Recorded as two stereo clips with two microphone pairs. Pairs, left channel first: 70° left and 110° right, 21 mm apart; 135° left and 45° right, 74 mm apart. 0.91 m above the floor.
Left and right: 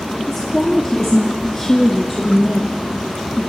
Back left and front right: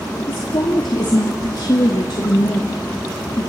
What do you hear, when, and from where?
0.2 s a woman speaking: 145° left, 2 m